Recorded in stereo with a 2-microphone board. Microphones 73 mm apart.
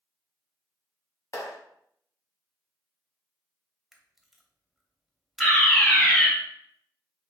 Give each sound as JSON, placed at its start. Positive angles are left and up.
{"t": 1.3, "sound": "a clap", "side_deg": 40, "distance_m": 1.7}
{"t": 3.9, "sound": "a camera shutter", "side_deg": 0, "distance_m": 0.7}
{"t": 5.4, "sound": "a fire alarm", "side_deg": 5, "distance_m": 2.0}